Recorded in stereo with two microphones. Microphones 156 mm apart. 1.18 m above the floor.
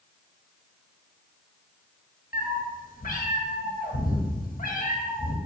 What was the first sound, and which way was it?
A cat meowing, 65° left (ahead or behind).